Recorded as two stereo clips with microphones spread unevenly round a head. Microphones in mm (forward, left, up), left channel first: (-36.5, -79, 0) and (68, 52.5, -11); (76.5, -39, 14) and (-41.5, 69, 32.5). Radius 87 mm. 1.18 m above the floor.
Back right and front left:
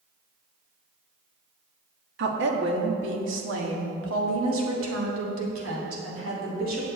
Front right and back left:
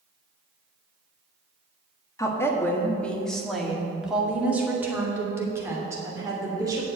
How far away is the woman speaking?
About 1.7 m.